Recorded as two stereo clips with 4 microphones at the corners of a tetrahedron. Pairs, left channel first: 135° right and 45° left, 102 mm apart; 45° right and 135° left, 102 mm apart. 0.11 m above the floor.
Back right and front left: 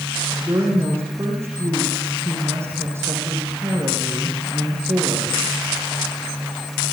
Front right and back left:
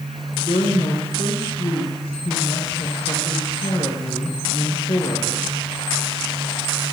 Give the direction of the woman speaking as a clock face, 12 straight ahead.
1 o'clock.